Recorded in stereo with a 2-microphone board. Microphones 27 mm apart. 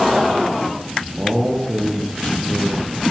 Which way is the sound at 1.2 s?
45° right (ahead or behind).